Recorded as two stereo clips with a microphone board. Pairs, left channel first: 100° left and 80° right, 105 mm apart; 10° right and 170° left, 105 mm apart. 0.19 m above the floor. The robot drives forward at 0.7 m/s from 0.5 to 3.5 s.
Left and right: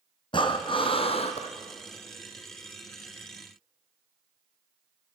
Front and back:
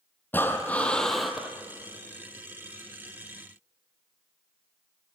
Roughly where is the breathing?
Ahead left.